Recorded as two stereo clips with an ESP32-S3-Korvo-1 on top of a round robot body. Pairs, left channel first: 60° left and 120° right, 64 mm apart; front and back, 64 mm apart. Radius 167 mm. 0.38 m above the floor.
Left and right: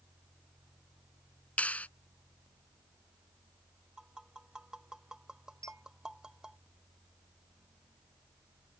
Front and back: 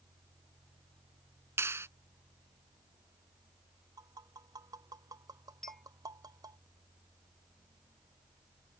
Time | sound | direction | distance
1.6 | a clap | 130° left | ?
4.0 | tapping | 160° left | ?
5.6 | a clink | 85° right | ?